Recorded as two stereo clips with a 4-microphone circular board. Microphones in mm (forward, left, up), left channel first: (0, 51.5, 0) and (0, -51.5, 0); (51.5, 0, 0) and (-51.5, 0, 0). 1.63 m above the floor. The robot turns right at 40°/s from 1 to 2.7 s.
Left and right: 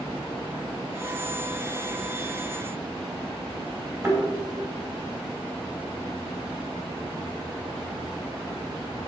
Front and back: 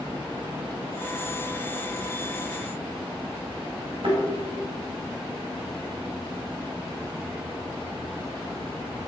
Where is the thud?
150° right, 4 m.